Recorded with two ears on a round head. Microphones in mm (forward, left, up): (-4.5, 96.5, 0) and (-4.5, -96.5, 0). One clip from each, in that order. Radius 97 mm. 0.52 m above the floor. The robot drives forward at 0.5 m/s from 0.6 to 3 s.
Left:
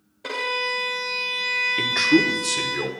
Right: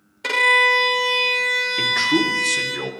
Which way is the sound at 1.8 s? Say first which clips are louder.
Left 1 dB; 5° left (ahead or behind).